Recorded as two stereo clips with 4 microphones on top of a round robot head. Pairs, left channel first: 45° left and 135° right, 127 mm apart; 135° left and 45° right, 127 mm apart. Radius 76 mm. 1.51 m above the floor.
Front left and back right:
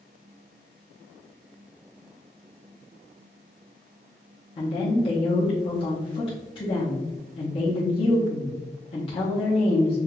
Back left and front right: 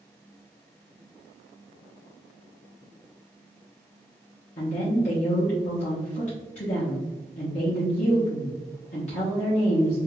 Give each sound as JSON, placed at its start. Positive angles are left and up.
{"t": 4.6, "sound": "a woman speaking", "azimuth_deg": 95, "distance_m": 1.0}